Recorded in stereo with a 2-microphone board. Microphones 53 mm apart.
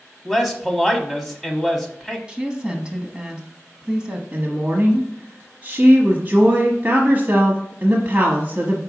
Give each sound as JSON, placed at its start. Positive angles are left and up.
{"t": 0.2, "sound": "a man speaking", "side_deg": 0, "distance_m": 1.1}
{"t": 2.3, "sound": "a woman speaking", "side_deg": -15, "distance_m": 1.2}
{"t": 4.3, "sound": "a woman speaking", "side_deg": -30, "distance_m": 1.1}